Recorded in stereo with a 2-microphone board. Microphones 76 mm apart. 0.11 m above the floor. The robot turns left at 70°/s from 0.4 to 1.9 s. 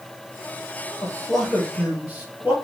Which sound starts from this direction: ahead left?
A man speaking, at 1.0 s.